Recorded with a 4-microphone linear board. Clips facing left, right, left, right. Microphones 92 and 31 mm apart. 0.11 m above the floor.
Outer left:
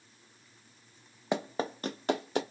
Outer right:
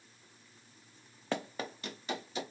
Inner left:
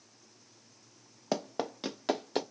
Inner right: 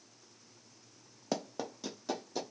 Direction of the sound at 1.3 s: 15° left (ahead or behind).